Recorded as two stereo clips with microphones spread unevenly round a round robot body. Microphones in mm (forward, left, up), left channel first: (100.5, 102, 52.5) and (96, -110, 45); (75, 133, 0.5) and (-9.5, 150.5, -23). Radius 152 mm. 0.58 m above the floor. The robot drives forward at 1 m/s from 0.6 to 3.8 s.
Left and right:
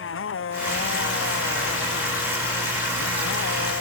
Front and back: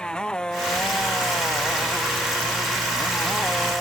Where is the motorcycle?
70° left; by 3.8 s 75° left.